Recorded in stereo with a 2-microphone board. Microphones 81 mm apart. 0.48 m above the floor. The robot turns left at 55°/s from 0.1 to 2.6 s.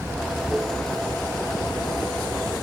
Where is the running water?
150° right; by 2.6 s 75° left.